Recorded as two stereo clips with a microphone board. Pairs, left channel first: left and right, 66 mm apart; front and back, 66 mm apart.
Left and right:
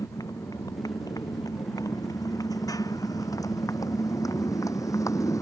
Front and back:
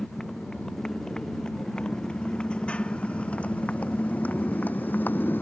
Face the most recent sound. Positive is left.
turn(degrees=60)